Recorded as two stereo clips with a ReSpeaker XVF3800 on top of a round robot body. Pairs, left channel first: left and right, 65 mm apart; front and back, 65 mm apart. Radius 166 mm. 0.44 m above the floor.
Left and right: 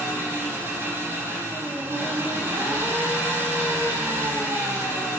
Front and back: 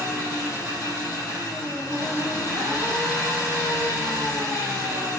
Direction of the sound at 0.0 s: 30° right.